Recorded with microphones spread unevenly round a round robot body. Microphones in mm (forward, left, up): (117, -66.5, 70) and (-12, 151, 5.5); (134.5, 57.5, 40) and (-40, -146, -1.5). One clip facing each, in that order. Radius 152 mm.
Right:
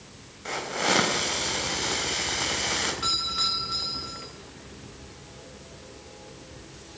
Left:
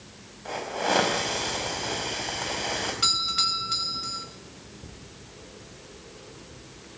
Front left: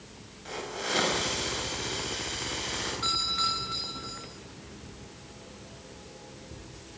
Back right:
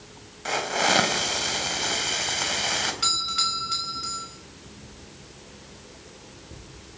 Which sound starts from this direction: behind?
A doorbell, at 3.0 s.